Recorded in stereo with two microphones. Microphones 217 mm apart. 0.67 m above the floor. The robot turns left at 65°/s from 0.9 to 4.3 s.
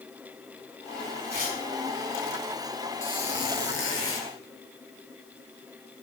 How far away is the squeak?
About 3 m.